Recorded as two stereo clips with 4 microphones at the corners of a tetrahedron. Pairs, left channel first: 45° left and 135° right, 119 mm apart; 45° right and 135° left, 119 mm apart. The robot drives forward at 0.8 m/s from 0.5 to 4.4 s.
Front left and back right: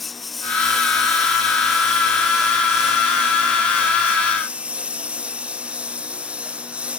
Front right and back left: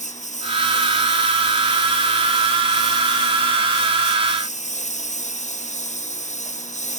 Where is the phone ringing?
I don't hear a phone ringing.